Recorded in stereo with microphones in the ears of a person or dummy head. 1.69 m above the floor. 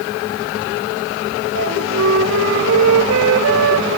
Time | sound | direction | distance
1.6 | a flute | 70° right (ahead or behind) | 0.9 m